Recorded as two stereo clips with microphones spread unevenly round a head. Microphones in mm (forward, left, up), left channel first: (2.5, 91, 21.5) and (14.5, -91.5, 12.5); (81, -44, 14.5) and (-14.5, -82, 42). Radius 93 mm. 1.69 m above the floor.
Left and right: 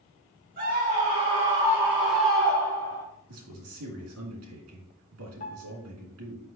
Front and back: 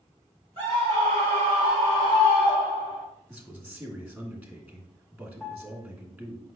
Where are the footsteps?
No footsteps in this recording.